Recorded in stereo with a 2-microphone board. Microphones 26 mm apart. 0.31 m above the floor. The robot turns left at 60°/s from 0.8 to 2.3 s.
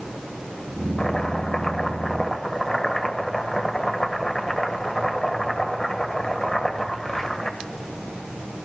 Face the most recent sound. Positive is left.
turn(degrees=20)  # may be behind; listen again after turning